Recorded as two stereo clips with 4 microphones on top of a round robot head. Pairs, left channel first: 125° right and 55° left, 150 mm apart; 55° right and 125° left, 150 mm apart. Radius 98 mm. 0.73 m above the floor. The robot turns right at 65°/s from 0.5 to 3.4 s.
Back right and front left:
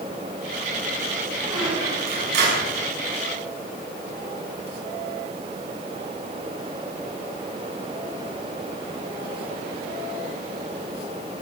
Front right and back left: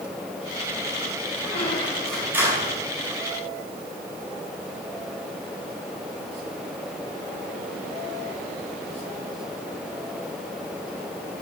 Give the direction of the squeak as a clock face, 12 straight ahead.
12 o'clock.